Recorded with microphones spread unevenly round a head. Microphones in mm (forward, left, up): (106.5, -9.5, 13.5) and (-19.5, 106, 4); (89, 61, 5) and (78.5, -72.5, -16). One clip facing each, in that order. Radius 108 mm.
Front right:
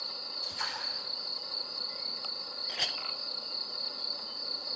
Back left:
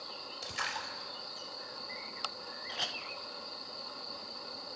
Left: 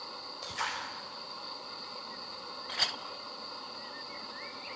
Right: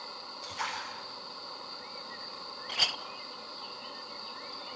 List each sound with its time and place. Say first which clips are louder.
0.4 s a splash: back left 1 dB, even; 130° left, 4.5 m
2.7 s a clink: front right 1 dB, right 1 dB; 10° right, 0.5 m